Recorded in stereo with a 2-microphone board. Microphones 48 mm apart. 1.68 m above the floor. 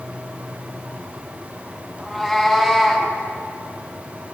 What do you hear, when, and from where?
2.0 s a cat meowing: 5° right (ahead or behind), 6.5 m